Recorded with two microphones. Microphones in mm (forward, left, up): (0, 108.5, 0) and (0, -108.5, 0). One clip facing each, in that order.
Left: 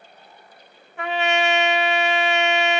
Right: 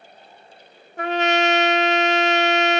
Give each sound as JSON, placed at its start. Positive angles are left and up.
{"t": 1.0, "sound": "a trumpet", "side_deg": -40, "distance_m": 0.5}